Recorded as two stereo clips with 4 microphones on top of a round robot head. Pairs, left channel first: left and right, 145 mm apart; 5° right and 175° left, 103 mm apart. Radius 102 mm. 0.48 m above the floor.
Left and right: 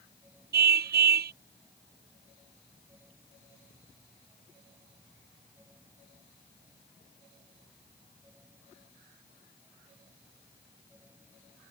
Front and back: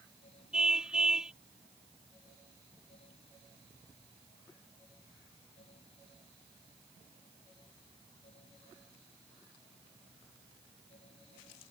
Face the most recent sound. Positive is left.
turn(degrees=-100)